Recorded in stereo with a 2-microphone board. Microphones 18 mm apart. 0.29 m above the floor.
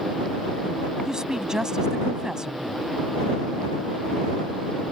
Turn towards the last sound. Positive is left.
turn(degrees=-40)  # may be behind; listen again after turning